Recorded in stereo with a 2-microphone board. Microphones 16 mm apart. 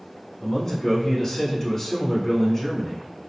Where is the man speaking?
35° left (ahead or behind), 1.7 m.